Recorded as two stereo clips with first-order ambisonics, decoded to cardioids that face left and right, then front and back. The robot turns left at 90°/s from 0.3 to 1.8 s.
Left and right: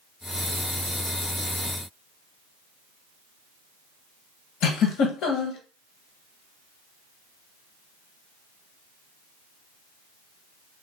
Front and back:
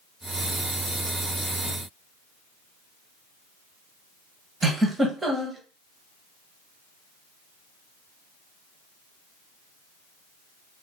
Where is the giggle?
100° left, 0.6 m.